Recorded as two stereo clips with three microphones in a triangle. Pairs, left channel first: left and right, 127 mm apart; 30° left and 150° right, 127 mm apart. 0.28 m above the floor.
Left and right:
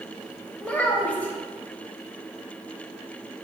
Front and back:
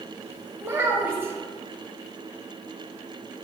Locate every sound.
0.6 s a child speaking: 160° left, 0.8 m